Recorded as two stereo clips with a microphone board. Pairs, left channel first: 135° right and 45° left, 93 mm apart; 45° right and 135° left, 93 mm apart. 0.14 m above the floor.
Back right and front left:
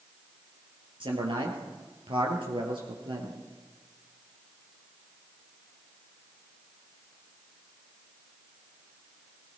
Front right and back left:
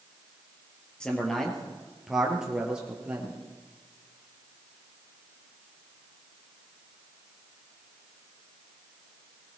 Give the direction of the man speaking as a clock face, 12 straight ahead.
11 o'clock.